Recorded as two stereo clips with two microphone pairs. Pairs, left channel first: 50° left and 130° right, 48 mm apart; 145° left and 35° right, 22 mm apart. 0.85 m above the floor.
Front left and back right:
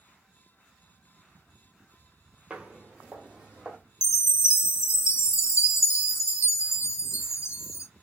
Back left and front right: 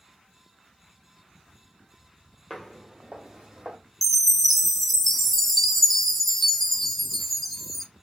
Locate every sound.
2.5 s footsteps: 150° right, 0.8 m; by 3.8 s 55° right, 1.5 m
4.0 s a chime: 60° left, 0.5 m